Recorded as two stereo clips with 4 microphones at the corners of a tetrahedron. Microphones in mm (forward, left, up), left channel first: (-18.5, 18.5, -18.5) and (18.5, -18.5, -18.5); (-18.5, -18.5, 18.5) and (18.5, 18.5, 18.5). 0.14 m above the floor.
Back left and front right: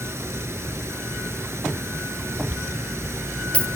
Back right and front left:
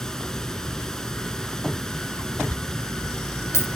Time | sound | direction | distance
0.0 | running water | 60° right | 0.8 m
2.5 | a dropped coin | 160° right | 1.2 m